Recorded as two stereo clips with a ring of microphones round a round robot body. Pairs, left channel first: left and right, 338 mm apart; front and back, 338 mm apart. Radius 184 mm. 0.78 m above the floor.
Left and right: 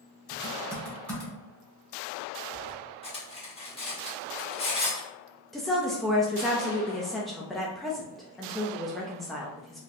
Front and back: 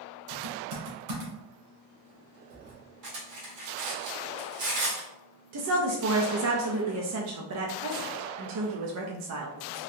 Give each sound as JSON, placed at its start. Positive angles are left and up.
{"t": 0.3, "sound": "typing on a keyboard", "azimuth_deg": 175, "distance_m": 1.8}
{"t": 3.0, "sound": "cutlery clinking", "azimuth_deg": 165, "distance_m": 1.6}
{"t": 5.5, "sound": "a woman speaking", "azimuth_deg": 180, "distance_m": 0.6}